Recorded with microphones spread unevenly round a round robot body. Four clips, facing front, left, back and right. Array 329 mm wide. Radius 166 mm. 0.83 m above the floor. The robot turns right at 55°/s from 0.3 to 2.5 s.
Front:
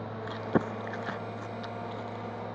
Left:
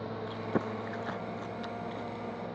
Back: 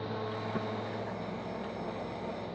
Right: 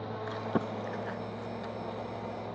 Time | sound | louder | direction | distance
0.3 | chewing | right 1 dB, front 5 dB | 35° right | 0.6 m